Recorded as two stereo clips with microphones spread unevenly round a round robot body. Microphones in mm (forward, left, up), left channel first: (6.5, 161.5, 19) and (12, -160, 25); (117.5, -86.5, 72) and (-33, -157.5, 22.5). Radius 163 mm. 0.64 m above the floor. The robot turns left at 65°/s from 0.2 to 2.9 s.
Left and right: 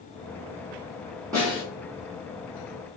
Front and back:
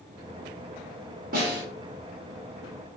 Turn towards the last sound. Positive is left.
turn(degrees=90)